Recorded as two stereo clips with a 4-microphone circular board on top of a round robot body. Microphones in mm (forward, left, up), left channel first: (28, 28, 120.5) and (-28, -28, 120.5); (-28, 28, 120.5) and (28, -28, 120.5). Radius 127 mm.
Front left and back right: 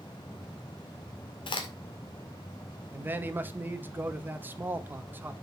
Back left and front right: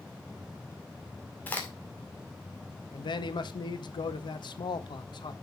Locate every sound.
1.5 s a crack: 65° left, 2 m
2.9 s a man speaking: 160° left, 1.1 m